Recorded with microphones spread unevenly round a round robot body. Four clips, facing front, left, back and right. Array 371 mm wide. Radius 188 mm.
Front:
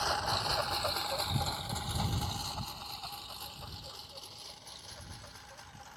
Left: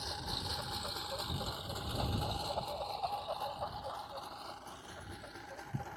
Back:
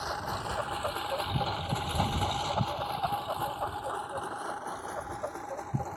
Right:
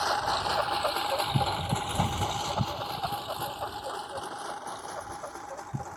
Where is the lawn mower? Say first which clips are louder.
Right 16 dB, front 1 dB; 70° right; by 6.0 s 170° right.